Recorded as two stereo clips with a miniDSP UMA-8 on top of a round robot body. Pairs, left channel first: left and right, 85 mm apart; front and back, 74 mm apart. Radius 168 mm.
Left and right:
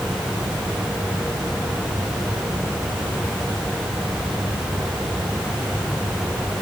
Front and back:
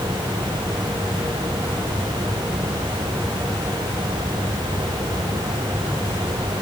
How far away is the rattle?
No rattle in this recording.